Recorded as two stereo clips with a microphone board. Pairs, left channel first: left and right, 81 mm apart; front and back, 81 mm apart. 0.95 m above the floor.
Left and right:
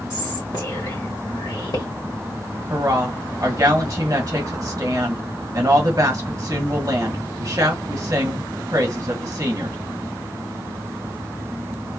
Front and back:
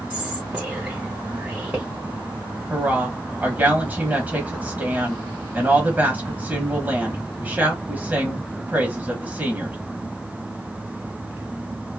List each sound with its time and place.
0.1 s whispering: 115° left, 1.3 m
2.7 s a woman speaking: 120° right, 1.0 m